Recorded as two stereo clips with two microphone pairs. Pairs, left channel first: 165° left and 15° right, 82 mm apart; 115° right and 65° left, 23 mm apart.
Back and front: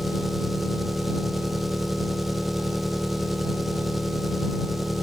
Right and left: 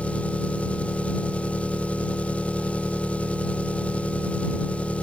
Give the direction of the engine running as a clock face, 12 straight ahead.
3 o'clock.